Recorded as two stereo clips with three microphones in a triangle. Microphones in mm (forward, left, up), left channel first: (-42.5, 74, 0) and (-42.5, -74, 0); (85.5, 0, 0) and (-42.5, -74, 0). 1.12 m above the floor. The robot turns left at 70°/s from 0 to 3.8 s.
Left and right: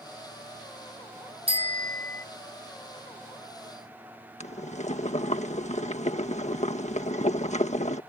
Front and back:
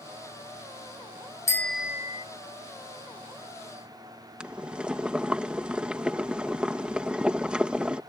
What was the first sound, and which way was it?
A bicycle bell, 40° right.